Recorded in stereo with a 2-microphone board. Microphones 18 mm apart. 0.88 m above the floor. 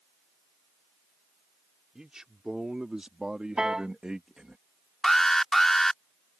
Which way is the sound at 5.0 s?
20° left (ahead or behind).